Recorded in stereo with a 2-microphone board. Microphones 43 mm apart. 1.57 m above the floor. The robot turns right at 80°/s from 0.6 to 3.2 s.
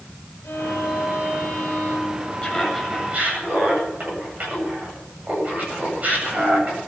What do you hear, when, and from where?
0.4 s a violin: 75° left, 7.5 m; by 2.3 s 145° right, 7.5 m
2.4 s laughter: 155° left, 8 m; by 6.8 s 140° right, 8 m